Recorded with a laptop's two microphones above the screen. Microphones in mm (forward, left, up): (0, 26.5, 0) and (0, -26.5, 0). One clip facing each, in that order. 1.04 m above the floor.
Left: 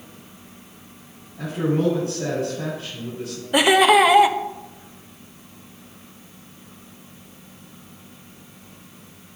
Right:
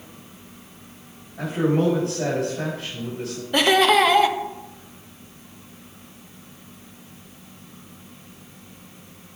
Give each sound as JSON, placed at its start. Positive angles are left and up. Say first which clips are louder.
{"t": 1.4, "sound": "a man speaking", "louder": "right 1 dB", "side_deg": -70, "distance_m": 6.5}
{"t": 3.5, "sound": "laughter", "louder": "left 2 dB", "side_deg": 10, "distance_m": 1.1}